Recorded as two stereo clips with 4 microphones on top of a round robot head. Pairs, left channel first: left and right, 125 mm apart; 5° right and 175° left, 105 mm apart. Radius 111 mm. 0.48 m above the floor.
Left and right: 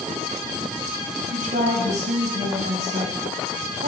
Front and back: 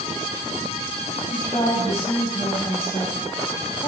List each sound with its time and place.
1.3 s a woman speaking: 70° right, 4 m